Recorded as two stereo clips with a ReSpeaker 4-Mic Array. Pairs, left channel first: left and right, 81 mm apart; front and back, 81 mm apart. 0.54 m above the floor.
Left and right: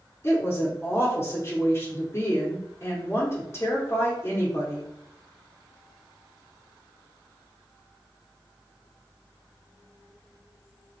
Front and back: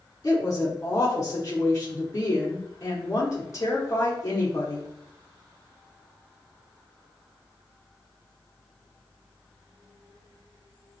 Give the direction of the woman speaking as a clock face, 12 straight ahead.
11 o'clock.